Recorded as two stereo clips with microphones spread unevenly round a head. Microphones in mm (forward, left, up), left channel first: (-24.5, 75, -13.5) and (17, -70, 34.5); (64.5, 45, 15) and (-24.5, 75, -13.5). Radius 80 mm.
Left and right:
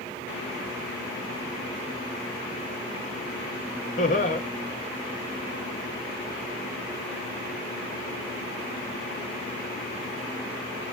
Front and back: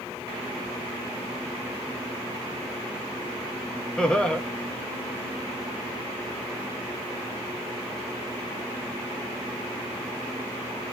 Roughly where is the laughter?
Ahead left.